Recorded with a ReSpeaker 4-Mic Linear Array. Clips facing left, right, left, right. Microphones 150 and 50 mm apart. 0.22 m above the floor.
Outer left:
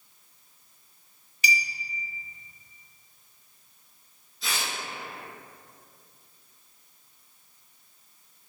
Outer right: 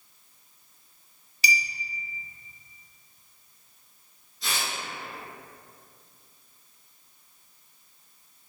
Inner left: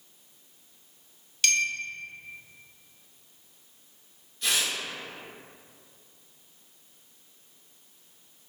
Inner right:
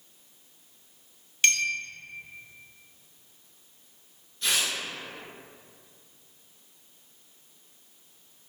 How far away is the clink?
About 0.6 m.